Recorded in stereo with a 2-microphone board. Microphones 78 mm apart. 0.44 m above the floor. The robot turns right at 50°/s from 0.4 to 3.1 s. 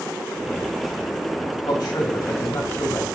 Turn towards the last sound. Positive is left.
turn(degrees=160)